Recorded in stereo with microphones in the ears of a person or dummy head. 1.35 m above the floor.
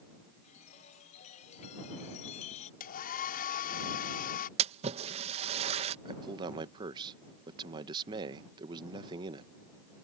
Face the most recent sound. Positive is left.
turn(degrees=-25)  # may be behind; listen again after turning